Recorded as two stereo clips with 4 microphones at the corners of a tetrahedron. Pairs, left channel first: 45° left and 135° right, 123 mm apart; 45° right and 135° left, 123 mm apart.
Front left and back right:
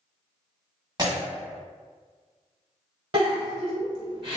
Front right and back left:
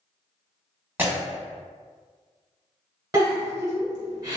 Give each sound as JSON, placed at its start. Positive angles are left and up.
{"t": 1.0, "sound": "breaking glass", "azimuth_deg": -160, "distance_m": 1.3}
{"t": 3.1, "sound": "a giggle", "azimuth_deg": -165, "distance_m": 1.6}